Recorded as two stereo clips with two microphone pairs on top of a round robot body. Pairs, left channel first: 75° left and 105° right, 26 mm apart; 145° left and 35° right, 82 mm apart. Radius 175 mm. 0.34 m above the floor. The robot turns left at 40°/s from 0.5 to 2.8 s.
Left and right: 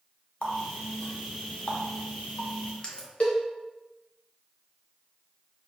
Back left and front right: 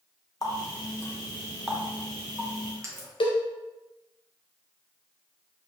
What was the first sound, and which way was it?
A running tap, 110° left.